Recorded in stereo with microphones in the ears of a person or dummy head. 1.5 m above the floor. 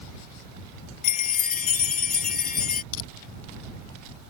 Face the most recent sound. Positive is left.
turn(degrees=80)